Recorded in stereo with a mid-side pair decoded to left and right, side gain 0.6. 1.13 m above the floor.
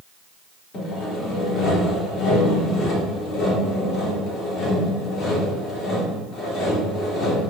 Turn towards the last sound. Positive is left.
turn(degrees=60)